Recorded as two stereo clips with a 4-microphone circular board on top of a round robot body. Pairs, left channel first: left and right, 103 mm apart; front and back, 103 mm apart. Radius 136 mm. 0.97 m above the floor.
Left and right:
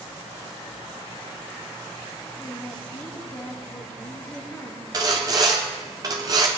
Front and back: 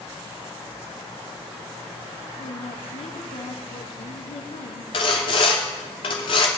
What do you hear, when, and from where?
2.4 s a woman speaking: 15° left, 1.6 m
4.9 s sawing: 35° right, 0.7 m